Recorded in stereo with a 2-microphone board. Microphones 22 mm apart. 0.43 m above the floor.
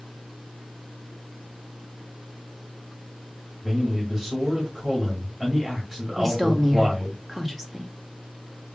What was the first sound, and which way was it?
A man speaking, 30° right (ahead or behind).